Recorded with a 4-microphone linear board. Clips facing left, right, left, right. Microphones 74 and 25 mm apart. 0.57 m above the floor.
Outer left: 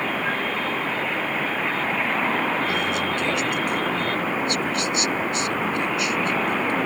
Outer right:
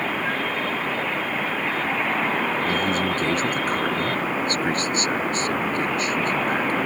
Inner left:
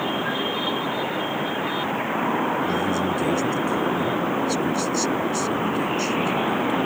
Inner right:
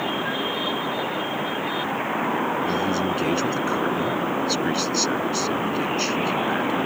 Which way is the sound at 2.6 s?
40° right (ahead or behind).